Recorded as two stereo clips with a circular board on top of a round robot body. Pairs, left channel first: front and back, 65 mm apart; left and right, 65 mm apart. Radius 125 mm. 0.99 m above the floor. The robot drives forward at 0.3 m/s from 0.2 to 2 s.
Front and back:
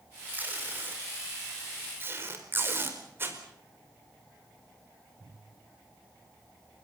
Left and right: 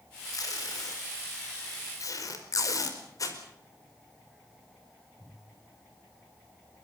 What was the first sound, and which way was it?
Tape being pulled, 120° left.